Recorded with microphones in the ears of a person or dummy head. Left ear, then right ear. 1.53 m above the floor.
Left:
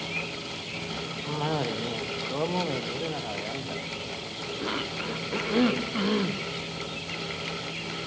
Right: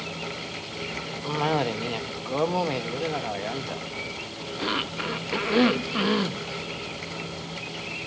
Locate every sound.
1.2 s a cough: 25° right (ahead or behind), 0.9 m